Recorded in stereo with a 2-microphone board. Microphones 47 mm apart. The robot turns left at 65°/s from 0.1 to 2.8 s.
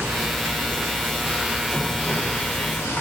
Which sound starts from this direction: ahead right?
Running water, at 0.0 s.